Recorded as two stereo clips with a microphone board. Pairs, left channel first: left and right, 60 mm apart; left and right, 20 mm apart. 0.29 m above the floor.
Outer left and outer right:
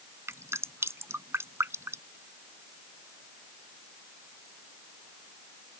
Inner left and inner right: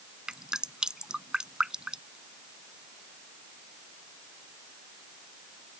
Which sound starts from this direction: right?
Dripping, at 0.3 s.